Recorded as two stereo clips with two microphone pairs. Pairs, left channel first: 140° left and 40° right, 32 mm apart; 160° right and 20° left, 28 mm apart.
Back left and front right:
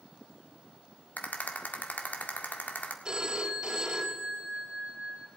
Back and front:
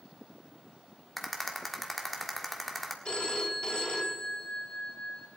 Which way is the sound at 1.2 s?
115° left.